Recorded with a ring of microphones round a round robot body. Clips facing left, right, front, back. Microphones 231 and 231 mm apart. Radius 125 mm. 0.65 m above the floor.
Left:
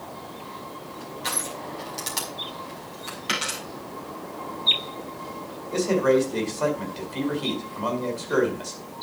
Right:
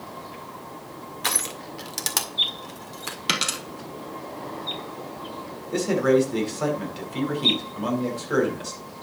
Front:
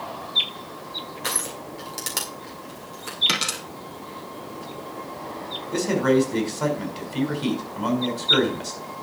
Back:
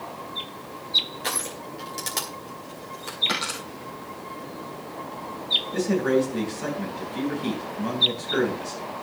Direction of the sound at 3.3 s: 55° right.